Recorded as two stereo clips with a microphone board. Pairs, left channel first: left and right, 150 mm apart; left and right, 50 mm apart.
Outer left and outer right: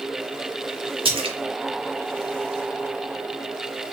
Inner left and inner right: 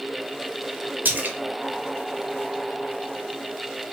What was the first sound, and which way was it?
A splash, 40° right (ahead or behind).